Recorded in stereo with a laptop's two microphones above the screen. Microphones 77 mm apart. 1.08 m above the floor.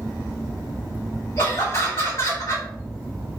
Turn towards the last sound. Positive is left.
turn(degrees=40)  # may be behind; listen again after turning